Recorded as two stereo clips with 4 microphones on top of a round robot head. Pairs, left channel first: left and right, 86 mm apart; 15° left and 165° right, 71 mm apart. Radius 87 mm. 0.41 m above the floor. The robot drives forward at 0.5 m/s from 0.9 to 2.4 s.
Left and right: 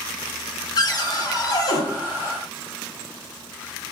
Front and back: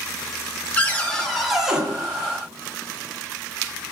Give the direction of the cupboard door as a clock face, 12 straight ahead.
9 o'clock.